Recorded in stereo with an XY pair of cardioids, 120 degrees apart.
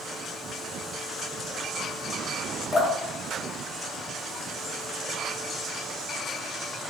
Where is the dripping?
25° left, 1.4 m.